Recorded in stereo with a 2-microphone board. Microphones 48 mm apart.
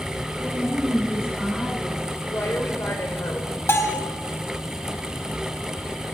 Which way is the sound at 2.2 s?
75° left (ahead or behind).